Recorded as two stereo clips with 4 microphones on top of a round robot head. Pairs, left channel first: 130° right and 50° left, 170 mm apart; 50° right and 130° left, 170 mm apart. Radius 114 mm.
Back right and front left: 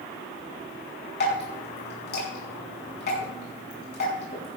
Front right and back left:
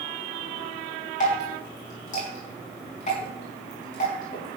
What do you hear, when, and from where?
1.2 s dripping: 100° right, 5 m